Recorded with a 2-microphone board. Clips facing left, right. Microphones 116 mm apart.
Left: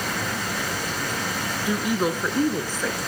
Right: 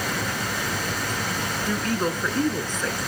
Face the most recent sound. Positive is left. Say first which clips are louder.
# left 2 dB
turn(degrees=10)  # may be behind; listen again after turning